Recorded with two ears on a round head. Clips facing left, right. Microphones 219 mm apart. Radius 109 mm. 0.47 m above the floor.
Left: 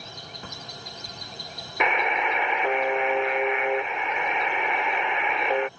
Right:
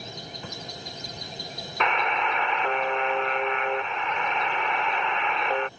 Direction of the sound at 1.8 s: 10° left (ahead or behind).